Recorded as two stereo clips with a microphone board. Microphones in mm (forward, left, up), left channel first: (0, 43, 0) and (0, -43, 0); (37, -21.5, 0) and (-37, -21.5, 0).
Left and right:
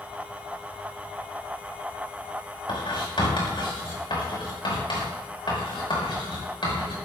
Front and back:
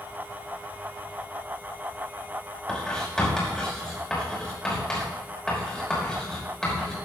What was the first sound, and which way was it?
Writing, 80° left.